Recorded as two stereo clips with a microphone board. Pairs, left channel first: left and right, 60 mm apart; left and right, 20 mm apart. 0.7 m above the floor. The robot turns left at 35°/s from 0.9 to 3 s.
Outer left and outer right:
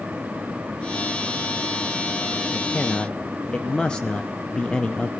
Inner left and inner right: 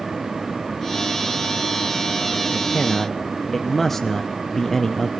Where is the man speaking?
5° left (ahead or behind), 0.5 m; by 5.1 s 15° left (ahead or behind), 0.5 m.